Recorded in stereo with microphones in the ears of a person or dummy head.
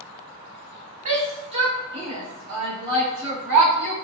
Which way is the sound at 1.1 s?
35° right (ahead or behind).